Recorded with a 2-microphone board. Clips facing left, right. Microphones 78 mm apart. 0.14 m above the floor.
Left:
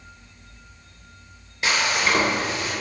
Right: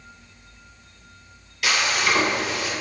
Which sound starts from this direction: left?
Frying, at 1.6 s.